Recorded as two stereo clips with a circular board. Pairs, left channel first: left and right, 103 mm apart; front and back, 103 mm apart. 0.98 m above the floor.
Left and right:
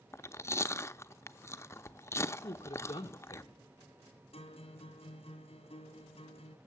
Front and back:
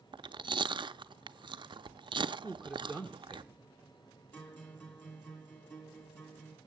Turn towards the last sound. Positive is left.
turn(degrees=70)